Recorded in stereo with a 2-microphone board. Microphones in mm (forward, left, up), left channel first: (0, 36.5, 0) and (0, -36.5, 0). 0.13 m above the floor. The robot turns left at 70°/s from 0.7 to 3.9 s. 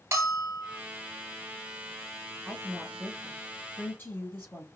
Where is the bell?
40° right (ahead or behind), 1.5 m; by 0.8 s 45° right (ahead or behind), 1.5 m.